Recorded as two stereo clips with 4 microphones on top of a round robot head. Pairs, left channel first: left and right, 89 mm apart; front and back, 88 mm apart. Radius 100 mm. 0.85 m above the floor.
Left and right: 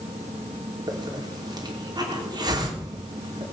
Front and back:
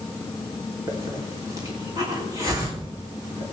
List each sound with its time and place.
0.9 s a hiss: 125° right, 3 m